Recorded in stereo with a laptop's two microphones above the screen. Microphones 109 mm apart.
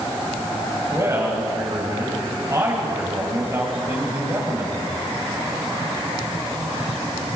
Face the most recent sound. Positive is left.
turn(degrees=-30)  # may be behind; listen again after turning